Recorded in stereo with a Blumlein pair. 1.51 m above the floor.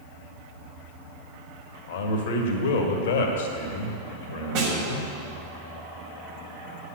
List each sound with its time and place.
1.9 s a man speaking: 55° left, 1.7 m
4.5 s a snare drum: 45° right, 5 m